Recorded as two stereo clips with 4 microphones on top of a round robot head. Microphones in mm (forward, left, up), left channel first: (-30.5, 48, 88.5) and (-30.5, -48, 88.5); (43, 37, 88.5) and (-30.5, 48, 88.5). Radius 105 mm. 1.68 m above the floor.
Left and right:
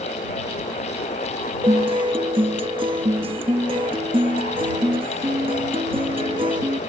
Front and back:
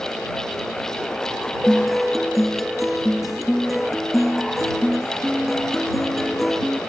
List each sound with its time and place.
1.6 s a guitar: 100° right